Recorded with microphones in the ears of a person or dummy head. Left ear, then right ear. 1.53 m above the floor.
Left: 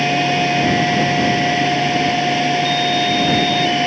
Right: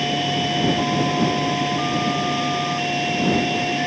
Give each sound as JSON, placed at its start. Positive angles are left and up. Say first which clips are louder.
{"t": 0.0, "sound": "a fan", "louder": "left 5 dB", "side_deg": 20}